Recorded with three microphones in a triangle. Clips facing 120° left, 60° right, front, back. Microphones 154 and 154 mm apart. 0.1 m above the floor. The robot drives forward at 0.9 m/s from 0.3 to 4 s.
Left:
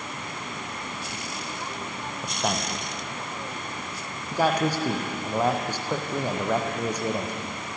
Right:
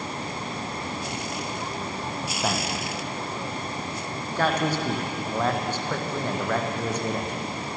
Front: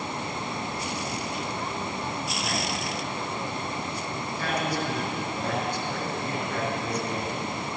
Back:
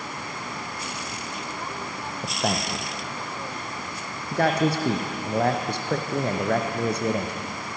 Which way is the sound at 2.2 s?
155° right.